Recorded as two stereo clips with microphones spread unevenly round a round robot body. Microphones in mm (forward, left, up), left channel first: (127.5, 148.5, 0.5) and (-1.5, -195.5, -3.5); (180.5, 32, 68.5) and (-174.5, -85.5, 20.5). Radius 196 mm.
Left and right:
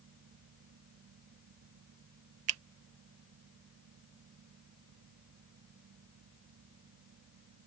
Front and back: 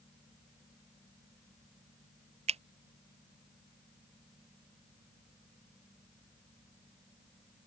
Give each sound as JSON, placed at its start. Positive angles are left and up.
{"t": 2.5, "sound": "a finger snap", "azimuth_deg": -110}